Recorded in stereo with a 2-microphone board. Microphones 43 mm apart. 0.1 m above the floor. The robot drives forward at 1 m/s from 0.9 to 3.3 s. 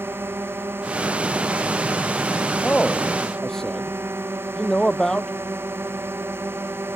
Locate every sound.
0.0 s a drone: 70° right (ahead or behind)
2.6 s a man speaking: 20° left (ahead or behind); by 5.3 s 15° left (ahead or behind)